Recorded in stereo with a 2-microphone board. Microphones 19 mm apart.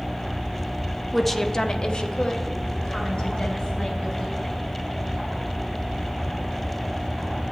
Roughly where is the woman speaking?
Centre.